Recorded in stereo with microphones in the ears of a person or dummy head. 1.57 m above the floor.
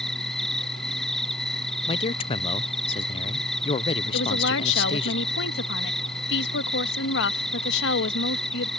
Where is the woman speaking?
70° left (ahead or behind).